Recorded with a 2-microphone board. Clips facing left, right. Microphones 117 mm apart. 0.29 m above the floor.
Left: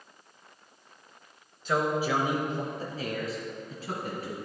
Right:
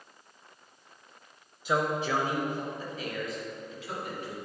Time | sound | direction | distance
1.6 | a man speaking | 10° right (ahead or behind) | 1.0 m